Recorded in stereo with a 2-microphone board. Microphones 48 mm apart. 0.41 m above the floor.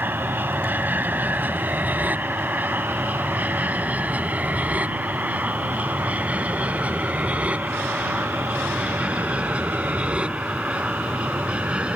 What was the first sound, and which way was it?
An aircraft, 40° right (ahead or behind).